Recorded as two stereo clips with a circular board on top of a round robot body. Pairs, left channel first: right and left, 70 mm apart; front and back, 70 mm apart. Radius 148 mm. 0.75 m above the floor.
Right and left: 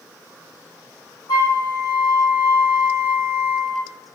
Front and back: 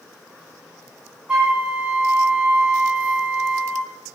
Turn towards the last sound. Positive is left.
turn(degrees=-105)